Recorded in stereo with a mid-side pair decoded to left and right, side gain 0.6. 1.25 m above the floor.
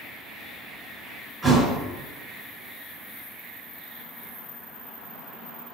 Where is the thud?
20° right, 2.0 m.